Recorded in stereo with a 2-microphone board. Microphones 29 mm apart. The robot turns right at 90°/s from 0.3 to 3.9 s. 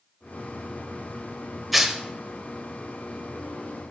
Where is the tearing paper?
5° right (ahead or behind), 0.8 m; by 2.0 s 25° right (ahead or behind), 0.8 m.